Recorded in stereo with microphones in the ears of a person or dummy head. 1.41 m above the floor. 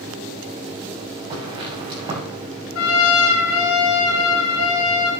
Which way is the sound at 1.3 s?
25° right (ahead or behind).